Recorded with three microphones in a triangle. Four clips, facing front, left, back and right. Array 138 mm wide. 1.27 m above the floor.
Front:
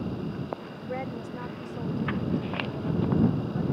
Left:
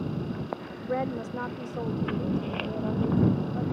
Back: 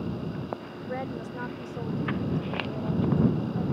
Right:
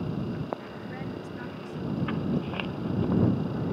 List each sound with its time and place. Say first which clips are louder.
0.9 s a woman speaking: left 10 dB, even; 80° left; by 3.6 s 100° left